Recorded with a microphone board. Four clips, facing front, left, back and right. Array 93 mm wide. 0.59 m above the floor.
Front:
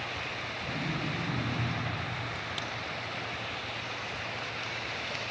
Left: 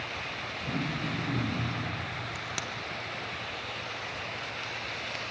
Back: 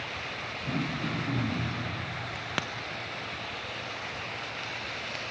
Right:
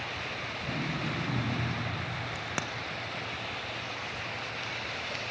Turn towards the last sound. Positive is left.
turn(degrees=-150)